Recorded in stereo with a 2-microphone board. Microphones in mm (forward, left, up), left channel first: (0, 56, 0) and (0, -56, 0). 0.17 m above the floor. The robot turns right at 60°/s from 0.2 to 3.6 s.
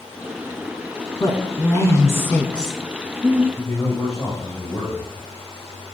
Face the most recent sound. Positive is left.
turn(degrees=10)  # may be behind; listen again after turning